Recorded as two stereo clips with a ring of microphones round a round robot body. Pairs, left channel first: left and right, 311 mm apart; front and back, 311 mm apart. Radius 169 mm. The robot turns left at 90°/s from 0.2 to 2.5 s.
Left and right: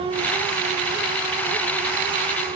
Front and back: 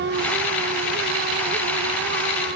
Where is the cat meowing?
I don't hear a cat meowing.